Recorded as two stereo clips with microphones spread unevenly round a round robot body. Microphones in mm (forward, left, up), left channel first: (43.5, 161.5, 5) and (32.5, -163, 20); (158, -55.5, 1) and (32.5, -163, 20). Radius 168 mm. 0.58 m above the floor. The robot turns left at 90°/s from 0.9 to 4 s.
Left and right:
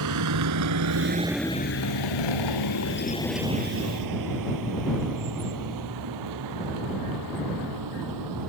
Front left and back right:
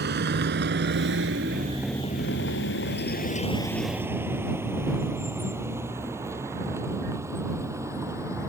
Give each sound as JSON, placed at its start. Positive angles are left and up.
{"t": 0.0, "sound": "a vehicle", "azimuth_deg": -135}